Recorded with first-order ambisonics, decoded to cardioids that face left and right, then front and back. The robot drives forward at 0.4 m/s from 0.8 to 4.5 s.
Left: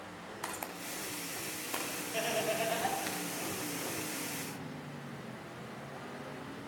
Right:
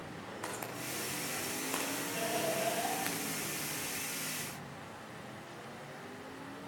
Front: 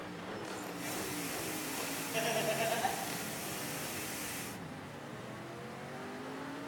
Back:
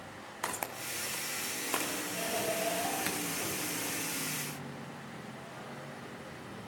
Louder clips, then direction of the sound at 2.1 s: Left 3 dB, front 2 dB; 20° left.